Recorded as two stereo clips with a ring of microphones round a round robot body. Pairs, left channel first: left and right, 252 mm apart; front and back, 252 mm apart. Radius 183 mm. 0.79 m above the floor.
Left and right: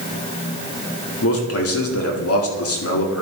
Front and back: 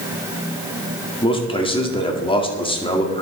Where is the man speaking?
70° left, 2 m.